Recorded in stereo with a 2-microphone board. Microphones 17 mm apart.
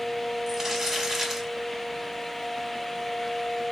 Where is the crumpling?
25° right (ahead or behind), 1.4 m.